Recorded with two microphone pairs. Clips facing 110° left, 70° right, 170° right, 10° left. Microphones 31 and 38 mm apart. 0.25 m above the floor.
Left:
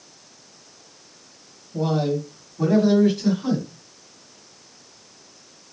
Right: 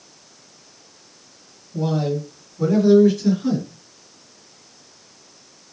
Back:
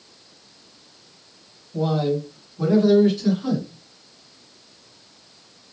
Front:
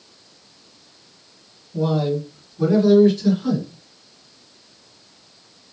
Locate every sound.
1.7 s a man speaking: 150° left, 1.2 m; by 3.7 s 125° left, 2 m